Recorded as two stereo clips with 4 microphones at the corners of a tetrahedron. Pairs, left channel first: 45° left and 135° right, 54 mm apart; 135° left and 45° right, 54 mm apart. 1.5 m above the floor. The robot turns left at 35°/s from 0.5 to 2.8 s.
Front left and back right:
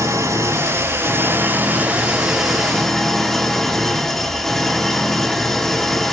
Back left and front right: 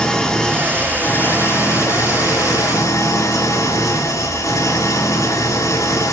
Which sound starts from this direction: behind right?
An engine running, at 0.0 s.